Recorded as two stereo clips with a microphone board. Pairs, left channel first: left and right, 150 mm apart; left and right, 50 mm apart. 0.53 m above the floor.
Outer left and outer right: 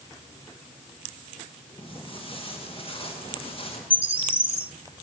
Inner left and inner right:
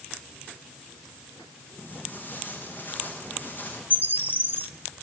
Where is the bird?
35° right (ahead or behind), 1.7 m.